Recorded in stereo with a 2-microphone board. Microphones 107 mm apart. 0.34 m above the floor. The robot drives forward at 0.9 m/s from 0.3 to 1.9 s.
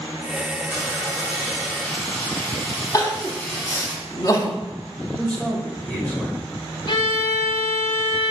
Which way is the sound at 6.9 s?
55° left (ahead or behind).